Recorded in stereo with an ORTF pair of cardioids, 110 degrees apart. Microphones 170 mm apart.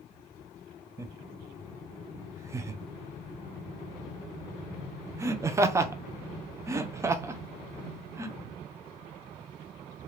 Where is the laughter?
15° right, 0.6 m.